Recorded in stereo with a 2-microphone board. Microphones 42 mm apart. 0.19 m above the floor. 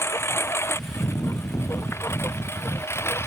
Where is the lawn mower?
80° left.